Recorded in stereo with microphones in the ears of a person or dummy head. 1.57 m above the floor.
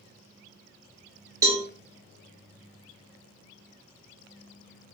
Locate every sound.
1.4 s a cowbell: 20° right (ahead or behind), 1.1 m